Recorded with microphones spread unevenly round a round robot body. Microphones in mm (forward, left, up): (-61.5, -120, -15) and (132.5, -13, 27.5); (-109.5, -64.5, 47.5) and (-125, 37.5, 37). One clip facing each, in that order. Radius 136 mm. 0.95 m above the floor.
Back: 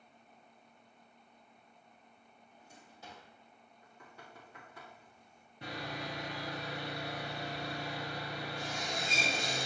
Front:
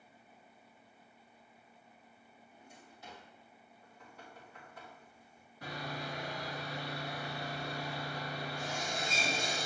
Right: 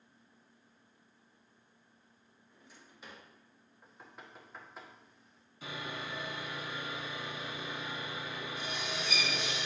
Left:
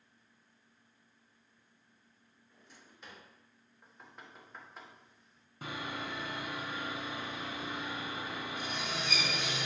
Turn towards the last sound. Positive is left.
turn(degrees=135)